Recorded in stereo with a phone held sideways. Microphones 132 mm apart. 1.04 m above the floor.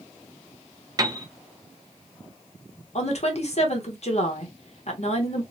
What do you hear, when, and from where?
1.0 s a piano: 30° right (ahead or behind), 0.6 m
3.0 s a woman speaking: 55° left (ahead or behind), 0.9 m